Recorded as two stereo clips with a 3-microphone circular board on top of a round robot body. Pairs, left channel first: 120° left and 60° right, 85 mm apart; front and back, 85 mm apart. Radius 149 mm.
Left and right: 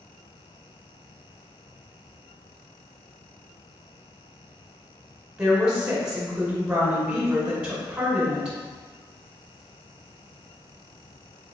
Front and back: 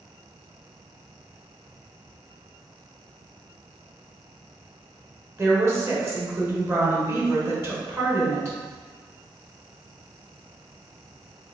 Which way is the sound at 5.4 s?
140° right.